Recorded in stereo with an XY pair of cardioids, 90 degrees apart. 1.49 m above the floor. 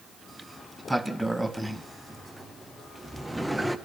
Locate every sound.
0.3 s a sliding door: 5° right, 1.1 m